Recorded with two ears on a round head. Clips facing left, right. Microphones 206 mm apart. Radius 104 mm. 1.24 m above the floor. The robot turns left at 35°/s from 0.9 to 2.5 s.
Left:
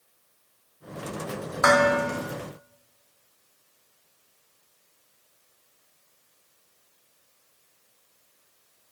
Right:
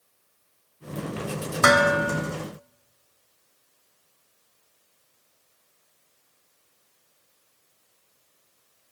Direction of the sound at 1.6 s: 40° right (ahead or behind).